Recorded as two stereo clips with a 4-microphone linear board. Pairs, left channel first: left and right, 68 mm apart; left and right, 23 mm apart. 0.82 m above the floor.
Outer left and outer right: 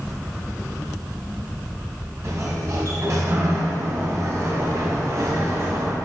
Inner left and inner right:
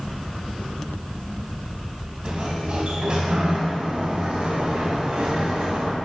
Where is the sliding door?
50° right (ahead or behind), 3 m.